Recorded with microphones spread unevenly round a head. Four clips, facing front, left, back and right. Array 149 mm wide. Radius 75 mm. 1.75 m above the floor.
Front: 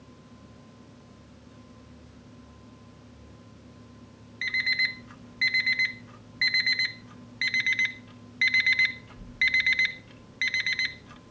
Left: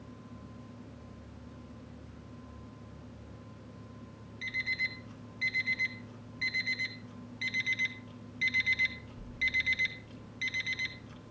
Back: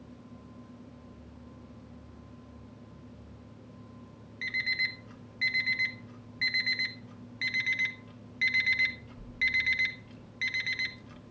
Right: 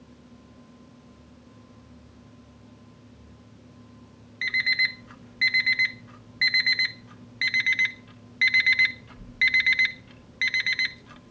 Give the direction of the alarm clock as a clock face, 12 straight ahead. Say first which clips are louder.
Right 10 dB, front 4 dB; 2 o'clock.